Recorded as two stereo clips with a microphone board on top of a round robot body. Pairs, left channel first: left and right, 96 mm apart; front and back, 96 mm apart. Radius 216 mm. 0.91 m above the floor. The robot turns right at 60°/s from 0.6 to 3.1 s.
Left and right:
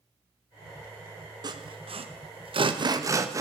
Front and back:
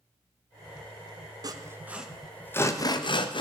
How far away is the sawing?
About 1.4 m.